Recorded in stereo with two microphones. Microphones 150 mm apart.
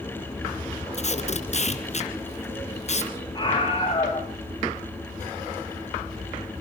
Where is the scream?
30° left (ahead or behind), 5 m.